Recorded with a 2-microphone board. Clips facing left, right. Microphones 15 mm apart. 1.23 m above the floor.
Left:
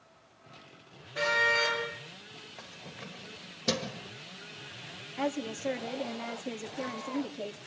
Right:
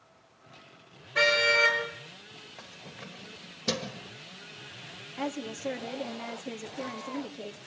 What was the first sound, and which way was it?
A car horn, 70° right (ahead or behind).